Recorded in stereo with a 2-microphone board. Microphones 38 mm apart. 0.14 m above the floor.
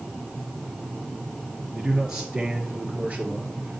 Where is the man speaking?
10° right (ahead or behind), 2 m; by 3.8 s 40° right (ahead or behind), 2 m.